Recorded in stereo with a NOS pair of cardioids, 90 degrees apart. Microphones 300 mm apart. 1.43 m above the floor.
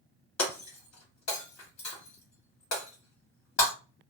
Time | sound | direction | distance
0.4 | breaking glass | 60° left | 1.9 m